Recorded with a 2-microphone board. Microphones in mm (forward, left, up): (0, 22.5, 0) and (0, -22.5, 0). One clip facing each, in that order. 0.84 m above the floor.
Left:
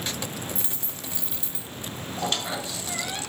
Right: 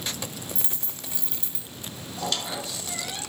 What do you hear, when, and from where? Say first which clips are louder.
0.6 s a dropped coin: left 2 dB; 5° left (ahead or behind), 1.4 m
2.2 s a squeak: left 1 dB; 30° left (ahead or behind), 1.5 m